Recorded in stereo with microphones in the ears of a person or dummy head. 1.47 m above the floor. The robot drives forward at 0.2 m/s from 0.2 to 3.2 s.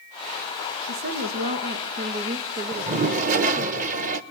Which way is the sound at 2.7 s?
40° right (ahead or behind).